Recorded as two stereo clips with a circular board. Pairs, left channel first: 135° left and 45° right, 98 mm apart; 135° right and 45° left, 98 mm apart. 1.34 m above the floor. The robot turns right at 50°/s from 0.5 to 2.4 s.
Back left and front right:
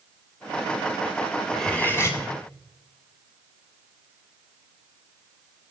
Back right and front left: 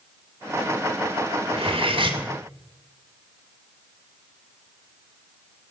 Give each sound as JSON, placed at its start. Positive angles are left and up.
{"t": 1.5, "sound": "cutlery clinking", "azimuth_deg": 50, "distance_m": 2.0}